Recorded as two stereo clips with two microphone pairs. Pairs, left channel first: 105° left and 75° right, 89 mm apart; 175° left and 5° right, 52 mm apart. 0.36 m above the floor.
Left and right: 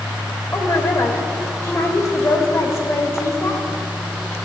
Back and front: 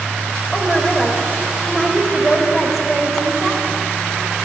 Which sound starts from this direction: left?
A woman speaking, at 0.5 s.